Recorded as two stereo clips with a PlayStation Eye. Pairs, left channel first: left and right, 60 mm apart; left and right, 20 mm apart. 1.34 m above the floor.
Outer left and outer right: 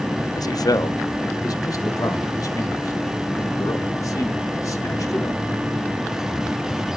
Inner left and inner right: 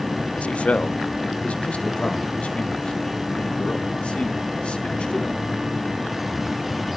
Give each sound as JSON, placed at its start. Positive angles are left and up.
{"t": 0.4, "sound": "a man speaking", "side_deg": 80, "distance_m": 0.6}